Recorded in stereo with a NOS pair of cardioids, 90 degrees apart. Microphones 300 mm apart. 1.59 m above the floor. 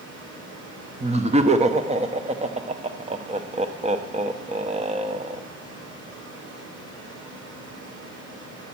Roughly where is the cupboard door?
No cupboard door in this recording.